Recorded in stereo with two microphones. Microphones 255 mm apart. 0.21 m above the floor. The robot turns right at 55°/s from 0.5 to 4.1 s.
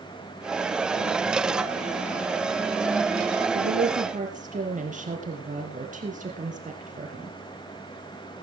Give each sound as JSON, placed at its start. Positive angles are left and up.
{"t": 3.5, "sound": "a woman speaking", "azimuth_deg": -60, "distance_m": 4.0}